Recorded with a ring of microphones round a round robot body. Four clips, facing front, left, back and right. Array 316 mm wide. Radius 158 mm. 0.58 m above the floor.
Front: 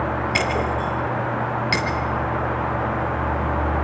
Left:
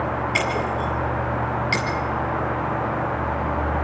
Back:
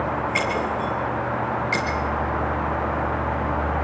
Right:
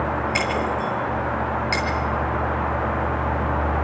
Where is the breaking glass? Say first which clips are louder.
Even, front 1 dB; 5° left, 8 m.